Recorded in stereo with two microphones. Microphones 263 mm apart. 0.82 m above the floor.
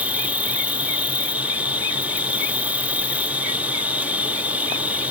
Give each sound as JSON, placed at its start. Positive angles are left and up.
{"t": 0.0, "sound": "an insect", "side_deg": -5}